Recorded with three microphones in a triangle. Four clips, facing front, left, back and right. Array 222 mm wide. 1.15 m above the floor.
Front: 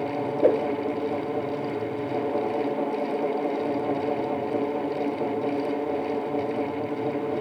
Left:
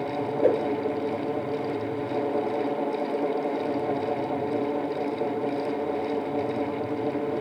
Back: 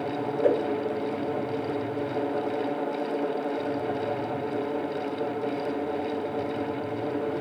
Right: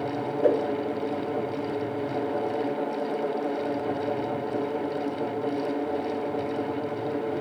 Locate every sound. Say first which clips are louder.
0.4 s a whoosh: even, front 3 dB; 10° left, 3 m